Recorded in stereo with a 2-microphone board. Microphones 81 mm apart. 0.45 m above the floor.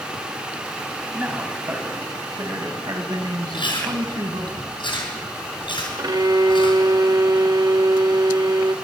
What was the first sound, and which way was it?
A man speaking, 15° right (ahead or behind).